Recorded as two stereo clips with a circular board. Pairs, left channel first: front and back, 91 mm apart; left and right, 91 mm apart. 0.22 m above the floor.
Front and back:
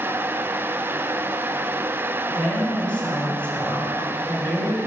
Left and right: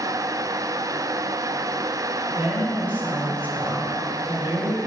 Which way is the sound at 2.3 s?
55° right.